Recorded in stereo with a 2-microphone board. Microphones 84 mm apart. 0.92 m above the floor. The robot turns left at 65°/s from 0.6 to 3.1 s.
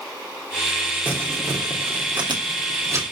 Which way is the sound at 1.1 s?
15° right (ahead or behind).